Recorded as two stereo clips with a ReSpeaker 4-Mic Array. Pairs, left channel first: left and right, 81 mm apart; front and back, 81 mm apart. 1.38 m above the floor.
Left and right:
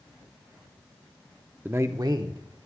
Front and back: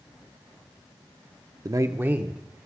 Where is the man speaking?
155° right, 0.6 m; by 2.7 s 100° right, 1.5 m.